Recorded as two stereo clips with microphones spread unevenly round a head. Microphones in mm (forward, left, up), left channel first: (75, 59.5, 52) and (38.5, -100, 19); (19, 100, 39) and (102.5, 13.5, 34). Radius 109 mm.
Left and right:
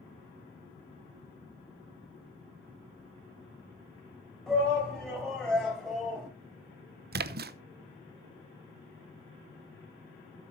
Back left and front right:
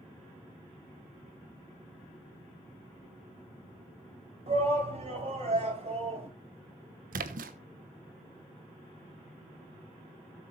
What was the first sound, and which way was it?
A shout, 10° right.